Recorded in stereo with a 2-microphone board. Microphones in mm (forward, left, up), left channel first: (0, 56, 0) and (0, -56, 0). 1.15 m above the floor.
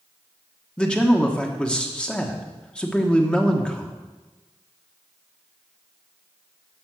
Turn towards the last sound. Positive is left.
turn(degrees=10)  # may be behind; listen again after turning